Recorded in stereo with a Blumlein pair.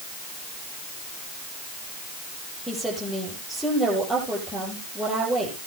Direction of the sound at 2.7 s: Straight ahead.